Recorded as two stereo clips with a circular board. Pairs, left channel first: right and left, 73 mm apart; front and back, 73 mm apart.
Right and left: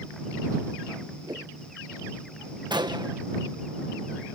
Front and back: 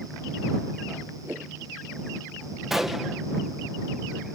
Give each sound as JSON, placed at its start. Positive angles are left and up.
{"t": 1.2, "sound": "a whoosh", "azimuth_deg": 120}
{"t": 2.7, "sound": "a gunshot", "azimuth_deg": 95}